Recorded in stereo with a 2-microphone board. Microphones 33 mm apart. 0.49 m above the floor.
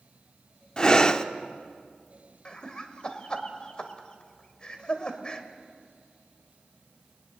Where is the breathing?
25° left (ahead or behind), 0.8 m.